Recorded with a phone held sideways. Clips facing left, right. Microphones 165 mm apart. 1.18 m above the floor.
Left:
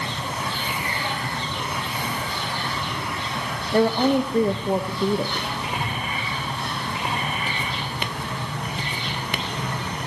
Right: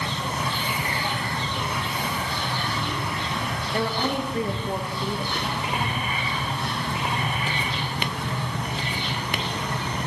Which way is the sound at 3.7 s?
40° left (ahead or behind).